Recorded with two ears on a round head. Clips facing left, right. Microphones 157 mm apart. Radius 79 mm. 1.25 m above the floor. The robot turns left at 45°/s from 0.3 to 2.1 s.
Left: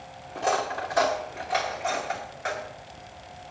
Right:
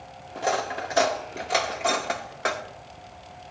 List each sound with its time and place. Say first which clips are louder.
0.3 s cutlery clinking: even; 5° right (ahead or behind), 0.9 m; by 2.6 s 70° right (ahead or behind), 0.9 m